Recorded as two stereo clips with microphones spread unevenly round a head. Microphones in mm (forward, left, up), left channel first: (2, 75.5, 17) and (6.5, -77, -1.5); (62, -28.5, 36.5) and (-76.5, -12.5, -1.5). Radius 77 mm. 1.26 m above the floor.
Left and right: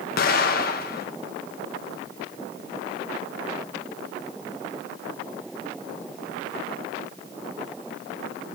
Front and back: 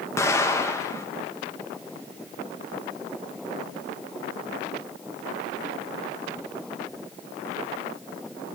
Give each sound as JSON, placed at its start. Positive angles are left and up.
{"t": 0.2, "sound": "an explosion", "azimuth_deg": 75, "distance_m": 0.9}